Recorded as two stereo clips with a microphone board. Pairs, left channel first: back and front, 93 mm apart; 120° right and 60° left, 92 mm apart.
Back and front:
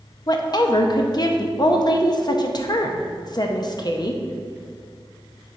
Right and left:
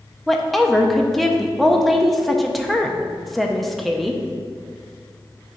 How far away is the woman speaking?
About 0.7 m.